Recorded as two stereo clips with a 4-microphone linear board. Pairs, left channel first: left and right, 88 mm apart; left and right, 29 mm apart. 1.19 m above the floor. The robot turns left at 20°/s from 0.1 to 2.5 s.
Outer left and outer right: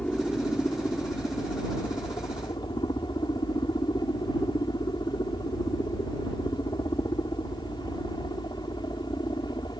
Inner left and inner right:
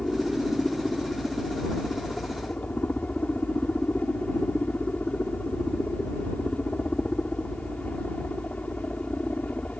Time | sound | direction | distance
0.0 | a helicopter | 165° left | ?